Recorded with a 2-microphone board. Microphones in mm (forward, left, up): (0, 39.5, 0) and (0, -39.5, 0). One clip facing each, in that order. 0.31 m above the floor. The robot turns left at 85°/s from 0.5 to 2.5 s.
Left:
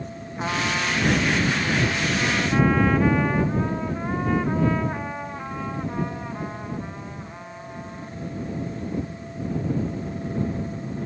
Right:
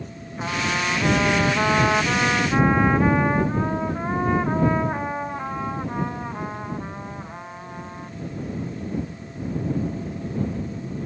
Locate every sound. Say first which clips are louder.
0.4 s a trumpet: even; 10° left; by 8.1 s 160° right